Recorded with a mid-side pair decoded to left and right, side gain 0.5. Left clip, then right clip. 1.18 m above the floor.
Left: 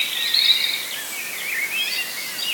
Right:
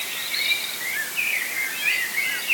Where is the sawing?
No sawing in this recording.